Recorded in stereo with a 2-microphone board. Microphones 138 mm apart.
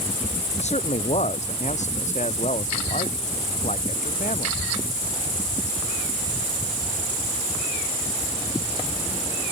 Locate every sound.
0.6 s a man speaking: 55° left (ahead or behind); by 4.6 s 65° left (ahead or behind)